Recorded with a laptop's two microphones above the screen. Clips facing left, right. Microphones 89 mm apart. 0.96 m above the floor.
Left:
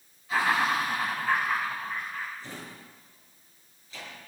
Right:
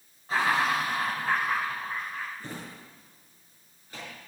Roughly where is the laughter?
Right.